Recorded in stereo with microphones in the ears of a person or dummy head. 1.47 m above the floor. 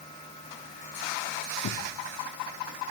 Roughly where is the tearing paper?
Left.